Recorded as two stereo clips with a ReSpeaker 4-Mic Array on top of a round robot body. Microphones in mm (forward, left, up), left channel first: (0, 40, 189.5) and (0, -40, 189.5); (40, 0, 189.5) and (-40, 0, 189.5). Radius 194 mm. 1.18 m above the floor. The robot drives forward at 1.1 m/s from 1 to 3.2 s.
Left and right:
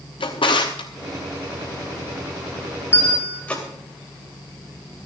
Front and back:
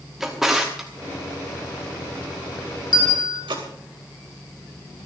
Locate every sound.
0.2 s a drawer: 95° left, 1.0 m; by 3.6 s 160° left, 2.5 m
2.9 s a bell: 25° left, 2.5 m; by 3.4 s 30° left, 2.5 m